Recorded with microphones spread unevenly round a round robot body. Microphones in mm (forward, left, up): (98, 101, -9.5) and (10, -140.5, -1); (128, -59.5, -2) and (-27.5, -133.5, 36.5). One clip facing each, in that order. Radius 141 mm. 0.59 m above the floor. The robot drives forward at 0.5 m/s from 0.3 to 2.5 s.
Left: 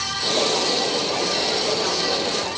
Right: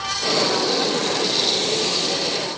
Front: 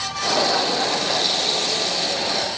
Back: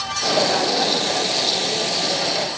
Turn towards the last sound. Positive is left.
No sound to turn to.